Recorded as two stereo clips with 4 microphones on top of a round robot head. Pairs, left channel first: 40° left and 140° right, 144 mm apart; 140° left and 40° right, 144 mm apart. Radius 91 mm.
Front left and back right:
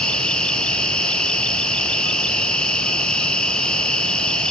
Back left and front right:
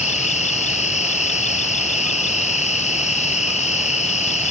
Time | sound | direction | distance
0.0 | an insect | 120° left | 1.4 m